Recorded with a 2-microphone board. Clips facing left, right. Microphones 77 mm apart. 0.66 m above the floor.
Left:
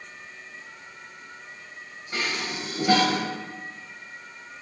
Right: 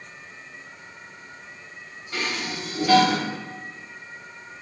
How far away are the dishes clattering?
About 2.5 m.